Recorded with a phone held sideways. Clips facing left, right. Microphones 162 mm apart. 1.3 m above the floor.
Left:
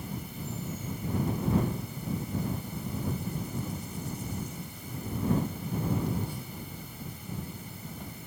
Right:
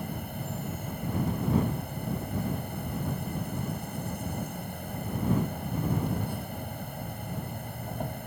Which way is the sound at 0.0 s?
55° right (ahead or behind).